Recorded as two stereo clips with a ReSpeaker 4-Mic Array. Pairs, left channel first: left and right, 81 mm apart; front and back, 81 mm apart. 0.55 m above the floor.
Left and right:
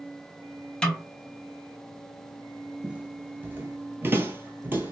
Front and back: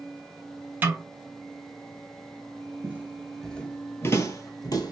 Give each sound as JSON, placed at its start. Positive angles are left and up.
{"t": 0.8, "sound": "a snare drum", "azimuth_deg": 150, "distance_m": 0.7}
{"t": 2.8, "sound": "footsteps", "azimuth_deg": -150, "distance_m": 0.5}